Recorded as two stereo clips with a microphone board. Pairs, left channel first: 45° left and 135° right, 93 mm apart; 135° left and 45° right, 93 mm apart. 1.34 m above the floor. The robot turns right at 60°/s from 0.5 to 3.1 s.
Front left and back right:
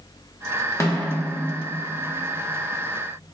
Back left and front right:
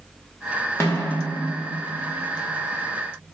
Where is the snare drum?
85° left, 0.6 m; by 1.1 s 105° left, 0.6 m.